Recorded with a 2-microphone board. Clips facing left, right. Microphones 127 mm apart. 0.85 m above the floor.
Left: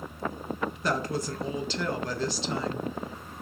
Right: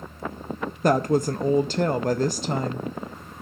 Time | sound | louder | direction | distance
0.8 | a woman speaking | right 11 dB | 50° right (ahead or behind) | 0.5 m